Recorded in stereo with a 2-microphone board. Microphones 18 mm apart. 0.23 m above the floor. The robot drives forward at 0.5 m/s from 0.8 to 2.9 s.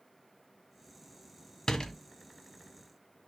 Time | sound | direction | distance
1.7 | a door slam | 45° left (ahead or behind) | 1.5 m